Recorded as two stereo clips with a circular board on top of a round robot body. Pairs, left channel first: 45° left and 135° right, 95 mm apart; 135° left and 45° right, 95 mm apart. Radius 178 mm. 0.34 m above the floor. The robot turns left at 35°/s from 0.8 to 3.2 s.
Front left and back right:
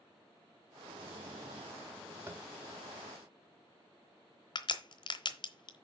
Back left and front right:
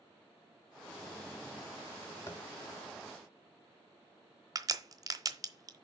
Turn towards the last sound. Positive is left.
turn(degrees=10)